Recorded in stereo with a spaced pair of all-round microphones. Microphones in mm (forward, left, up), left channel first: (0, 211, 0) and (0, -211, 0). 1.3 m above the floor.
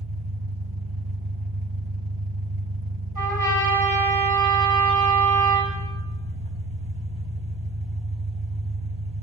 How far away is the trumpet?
About 8 m.